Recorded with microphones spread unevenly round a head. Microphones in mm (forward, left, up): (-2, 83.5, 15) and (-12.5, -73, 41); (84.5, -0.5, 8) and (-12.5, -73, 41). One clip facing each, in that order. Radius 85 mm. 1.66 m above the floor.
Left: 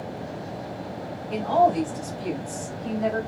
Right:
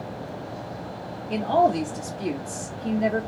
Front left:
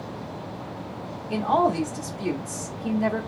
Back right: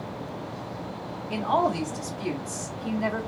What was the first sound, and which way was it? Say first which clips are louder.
A woman speaking: even, front left 3 dB; 30° right.